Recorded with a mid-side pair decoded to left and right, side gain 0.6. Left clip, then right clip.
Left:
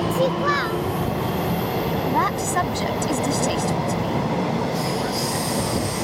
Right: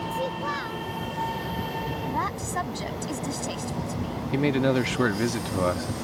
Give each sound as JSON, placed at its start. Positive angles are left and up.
{"t": 0.1, "sound": "a child speaking", "azimuth_deg": 45}
{"t": 2.0, "sound": "a woman speaking", "azimuth_deg": 35}
{"t": 4.3, "sound": "a man speaking", "azimuth_deg": -55}